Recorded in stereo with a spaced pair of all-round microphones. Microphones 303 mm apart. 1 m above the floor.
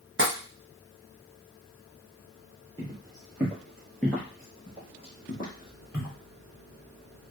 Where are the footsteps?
15° right (ahead or behind), 1.3 m; by 6.2 s 30° left (ahead or behind), 1.3 m.